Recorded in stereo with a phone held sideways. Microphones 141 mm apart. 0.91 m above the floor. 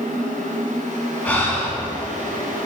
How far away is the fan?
About 4.5 m.